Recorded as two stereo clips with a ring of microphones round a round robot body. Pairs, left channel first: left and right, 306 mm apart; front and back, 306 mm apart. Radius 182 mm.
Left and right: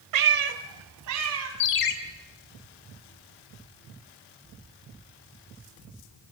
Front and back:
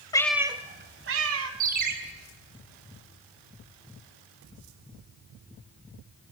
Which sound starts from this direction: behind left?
A ringtone, at 1.6 s.